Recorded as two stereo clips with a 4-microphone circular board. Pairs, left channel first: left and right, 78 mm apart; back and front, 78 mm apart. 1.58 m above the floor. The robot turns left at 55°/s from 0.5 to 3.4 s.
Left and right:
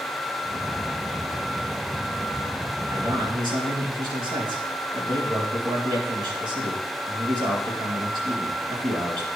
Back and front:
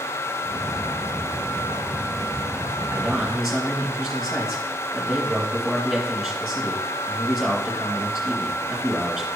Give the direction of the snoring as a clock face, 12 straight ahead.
I don't hear snoring.